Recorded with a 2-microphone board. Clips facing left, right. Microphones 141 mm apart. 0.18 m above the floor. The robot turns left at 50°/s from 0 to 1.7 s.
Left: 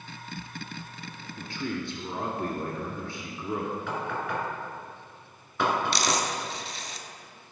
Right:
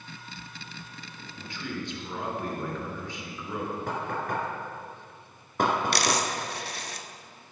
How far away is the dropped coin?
About 0.7 m.